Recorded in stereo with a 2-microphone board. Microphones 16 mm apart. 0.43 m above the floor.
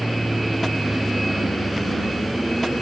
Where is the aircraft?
Centre (ahead or behind).